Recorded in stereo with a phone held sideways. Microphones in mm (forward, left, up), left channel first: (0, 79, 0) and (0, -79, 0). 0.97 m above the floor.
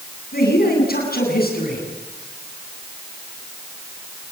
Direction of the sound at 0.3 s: 75° left (ahead or behind).